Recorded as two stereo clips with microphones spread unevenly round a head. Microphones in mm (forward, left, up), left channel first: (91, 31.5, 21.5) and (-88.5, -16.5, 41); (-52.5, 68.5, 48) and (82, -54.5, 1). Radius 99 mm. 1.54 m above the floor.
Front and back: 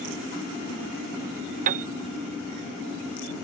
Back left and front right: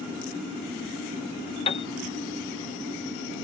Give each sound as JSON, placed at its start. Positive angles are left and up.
{"t": 1.7, "sound": "a piano", "azimuth_deg": 170}